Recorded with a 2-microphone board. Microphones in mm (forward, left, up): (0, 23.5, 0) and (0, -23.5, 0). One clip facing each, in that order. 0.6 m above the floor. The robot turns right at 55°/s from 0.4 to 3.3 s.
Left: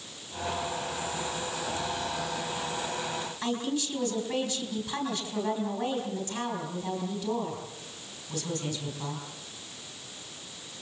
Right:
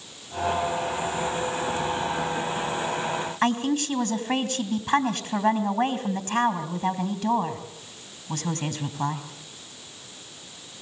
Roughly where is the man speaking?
Right.